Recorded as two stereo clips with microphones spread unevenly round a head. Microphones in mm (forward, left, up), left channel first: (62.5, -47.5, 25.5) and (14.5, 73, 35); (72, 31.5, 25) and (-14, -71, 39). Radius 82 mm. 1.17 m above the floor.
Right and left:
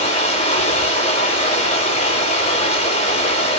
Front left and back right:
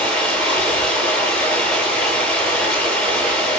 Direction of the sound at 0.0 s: 35° right.